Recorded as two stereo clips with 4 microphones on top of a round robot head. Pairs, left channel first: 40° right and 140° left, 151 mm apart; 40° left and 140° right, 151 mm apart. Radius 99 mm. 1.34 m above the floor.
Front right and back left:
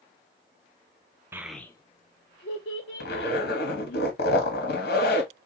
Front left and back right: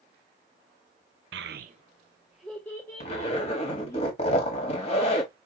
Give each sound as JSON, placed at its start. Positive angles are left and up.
{"t": 1.3, "sound": "a child speaking", "azimuth_deg": -145, "distance_m": 0.5}
{"t": 3.0, "sound": "a zipper", "azimuth_deg": -10, "distance_m": 1.9}